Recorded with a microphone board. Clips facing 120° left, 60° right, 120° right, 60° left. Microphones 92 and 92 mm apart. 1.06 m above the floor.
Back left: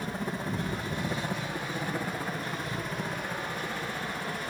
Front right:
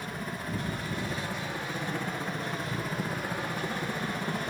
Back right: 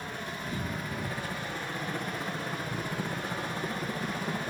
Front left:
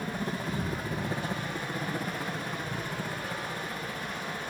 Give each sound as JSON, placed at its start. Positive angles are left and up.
{"t": 0.0, "sound": "a helicopter", "azimuth_deg": 75}